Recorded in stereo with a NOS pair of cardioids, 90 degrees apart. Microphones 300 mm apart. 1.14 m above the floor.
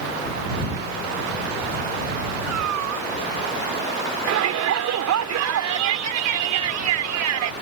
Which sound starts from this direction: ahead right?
A shout, at 4.3 s.